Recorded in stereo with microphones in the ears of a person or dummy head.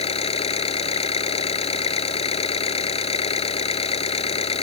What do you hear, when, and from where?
0.0 s an engine running: 35° left (ahead or behind)